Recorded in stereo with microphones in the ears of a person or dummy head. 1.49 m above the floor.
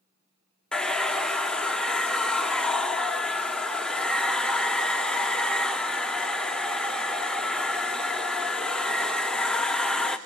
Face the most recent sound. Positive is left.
turn(degrees=0)  # may be behind; listen again after turning